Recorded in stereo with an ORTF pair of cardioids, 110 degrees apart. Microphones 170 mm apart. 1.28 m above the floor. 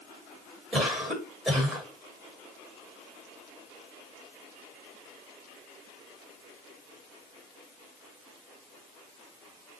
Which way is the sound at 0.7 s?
Straight ahead.